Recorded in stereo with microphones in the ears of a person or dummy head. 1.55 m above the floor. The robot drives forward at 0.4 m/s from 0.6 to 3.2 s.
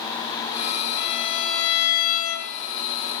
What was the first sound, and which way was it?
A violin, 55° left (ahead or behind).